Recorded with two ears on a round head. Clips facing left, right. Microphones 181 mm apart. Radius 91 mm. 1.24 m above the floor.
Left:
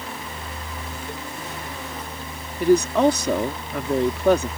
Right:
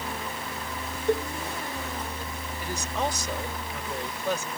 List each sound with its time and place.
1.1 s a cowbell: 50° right (ahead or behind)
2.6 s a woman speaking: 50° left (ahead or behind)